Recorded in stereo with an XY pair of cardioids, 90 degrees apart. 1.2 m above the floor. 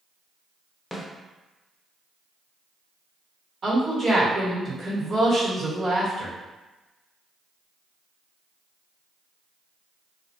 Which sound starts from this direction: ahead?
A snare drum, at 0.9 s.